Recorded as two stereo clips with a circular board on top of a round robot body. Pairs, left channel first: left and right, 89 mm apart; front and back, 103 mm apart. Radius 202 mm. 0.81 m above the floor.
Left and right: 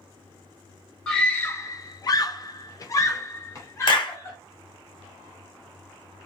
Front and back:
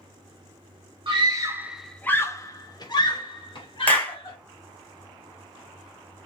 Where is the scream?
170° left, 0.6 m; by 4.4 s 30° left, 1.6 m.